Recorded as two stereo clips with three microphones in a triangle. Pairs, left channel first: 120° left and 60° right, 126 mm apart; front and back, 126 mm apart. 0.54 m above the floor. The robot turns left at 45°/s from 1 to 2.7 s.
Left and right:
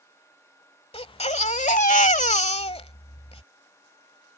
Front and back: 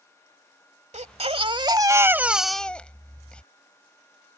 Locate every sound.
0.9 s a baby crying: 155° left; by 3.4 s 80° left